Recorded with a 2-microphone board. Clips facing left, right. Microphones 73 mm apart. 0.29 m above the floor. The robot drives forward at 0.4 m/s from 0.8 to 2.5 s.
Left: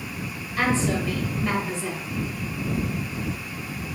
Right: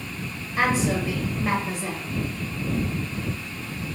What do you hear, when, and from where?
0.6 s a woman speaking: 15° right (ahead or behind), 1.2 m